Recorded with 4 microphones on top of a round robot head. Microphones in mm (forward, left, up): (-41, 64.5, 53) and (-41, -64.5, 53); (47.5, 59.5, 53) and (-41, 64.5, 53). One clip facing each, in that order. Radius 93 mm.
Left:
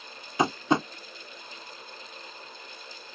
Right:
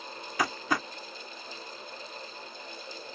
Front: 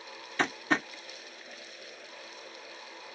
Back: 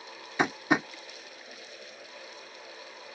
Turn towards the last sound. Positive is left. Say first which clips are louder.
# left 6 dB, back 3 dB
turn(degrees=115)